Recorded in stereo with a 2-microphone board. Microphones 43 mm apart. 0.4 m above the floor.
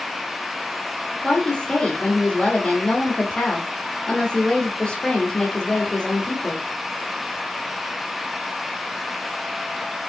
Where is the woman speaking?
20° left (ahead or behind), 0.9 m.